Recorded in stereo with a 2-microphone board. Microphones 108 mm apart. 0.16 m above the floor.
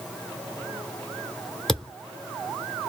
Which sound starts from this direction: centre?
A thud, at 1.7 s.